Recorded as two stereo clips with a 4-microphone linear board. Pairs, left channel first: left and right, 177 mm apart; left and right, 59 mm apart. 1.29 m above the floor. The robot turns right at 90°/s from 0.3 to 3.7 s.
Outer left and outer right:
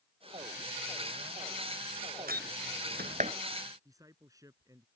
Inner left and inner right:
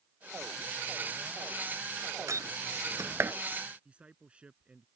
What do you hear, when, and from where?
2.3 s a door slam: 55° right (ahead or behind); by 3.3 s 30° right (ahead or behind)
3.9 s a man speaking: 20° right (ahead or behind)